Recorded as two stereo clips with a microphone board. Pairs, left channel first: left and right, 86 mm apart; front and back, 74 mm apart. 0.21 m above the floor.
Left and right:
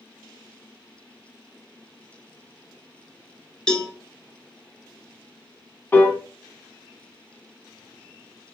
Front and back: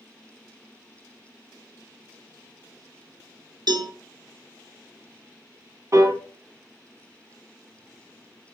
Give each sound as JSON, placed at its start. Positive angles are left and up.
{"t": 3.7, "sound": "a cowbell", "azimuth_deg": 170, "distance_m": 0.8}
{"t": 5.9, "sound": "a piano", "azimuth_deg": 150, "distance_m": 1.0}